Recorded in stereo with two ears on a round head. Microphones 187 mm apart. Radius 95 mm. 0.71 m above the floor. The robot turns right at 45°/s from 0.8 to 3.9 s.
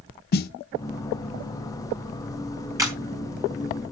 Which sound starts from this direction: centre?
A camera shutter, at 2.8 s.